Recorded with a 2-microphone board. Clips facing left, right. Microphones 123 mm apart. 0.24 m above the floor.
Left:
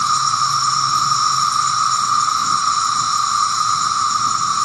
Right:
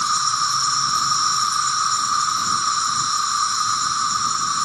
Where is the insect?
60° left (ahead or behind).